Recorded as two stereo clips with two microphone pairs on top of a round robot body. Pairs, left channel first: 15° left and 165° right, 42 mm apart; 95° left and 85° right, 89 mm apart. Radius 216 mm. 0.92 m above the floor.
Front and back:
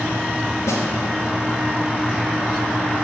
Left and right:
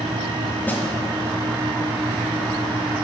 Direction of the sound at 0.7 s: 25° left.